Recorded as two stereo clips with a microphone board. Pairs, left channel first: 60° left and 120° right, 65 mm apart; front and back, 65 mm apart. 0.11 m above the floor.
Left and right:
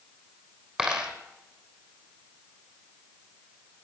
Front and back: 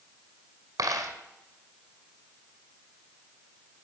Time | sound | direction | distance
0.8 | a dropped coin | 160° left | 2.5 m